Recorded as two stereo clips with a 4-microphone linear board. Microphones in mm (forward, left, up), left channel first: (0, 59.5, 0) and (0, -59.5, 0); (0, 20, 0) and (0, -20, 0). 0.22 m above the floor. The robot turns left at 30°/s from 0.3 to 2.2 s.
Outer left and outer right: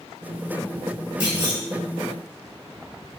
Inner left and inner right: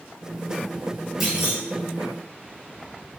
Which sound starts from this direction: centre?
A clunk, at 1.2 s.